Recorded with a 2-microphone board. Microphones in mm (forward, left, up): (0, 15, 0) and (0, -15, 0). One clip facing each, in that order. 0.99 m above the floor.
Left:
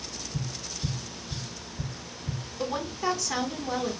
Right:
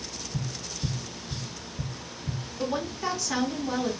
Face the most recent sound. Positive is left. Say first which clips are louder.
# even
turn(degrees=-10)  # may be behind; listen again after turning